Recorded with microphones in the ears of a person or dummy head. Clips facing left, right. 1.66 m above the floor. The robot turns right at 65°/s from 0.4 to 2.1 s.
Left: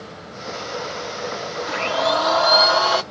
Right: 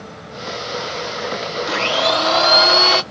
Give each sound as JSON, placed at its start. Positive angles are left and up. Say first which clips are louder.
{"t": 1.7, "sound": "a blender", "louder": "right 1 dB", "side_deg": -55, "distance_m": 1.0}